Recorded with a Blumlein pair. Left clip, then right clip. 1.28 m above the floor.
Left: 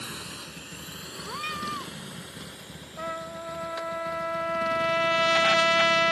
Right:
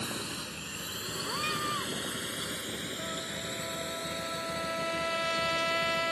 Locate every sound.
0.0 s a drone: 5° right; by 6.1 s 40° right
1.2 s a cat meowing: 5° left
3.0 s a trumpet: 25° left